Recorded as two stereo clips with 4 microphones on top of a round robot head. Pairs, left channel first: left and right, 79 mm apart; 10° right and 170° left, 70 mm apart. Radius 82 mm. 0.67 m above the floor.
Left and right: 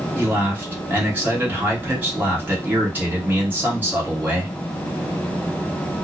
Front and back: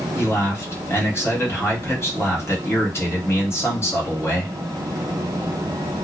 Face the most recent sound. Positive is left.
turn(degrees=-35)